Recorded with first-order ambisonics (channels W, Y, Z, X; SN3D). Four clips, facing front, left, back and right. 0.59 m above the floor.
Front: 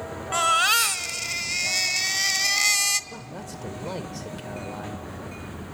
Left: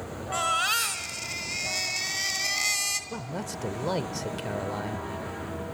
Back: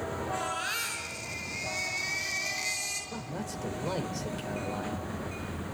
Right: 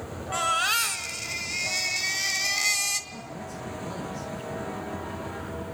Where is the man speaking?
85° left, 1.8 m.